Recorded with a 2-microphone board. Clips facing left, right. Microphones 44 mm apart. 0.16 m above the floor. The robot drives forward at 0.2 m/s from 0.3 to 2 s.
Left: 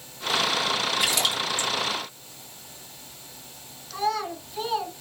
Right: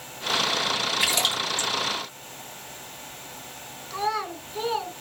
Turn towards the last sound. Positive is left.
turn(degrees=-20)  # may be behind; listen again after turning